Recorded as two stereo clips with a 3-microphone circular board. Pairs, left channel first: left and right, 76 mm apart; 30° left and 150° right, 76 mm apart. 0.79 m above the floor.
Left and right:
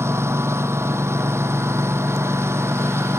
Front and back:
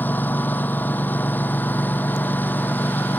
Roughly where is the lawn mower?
Ahead right.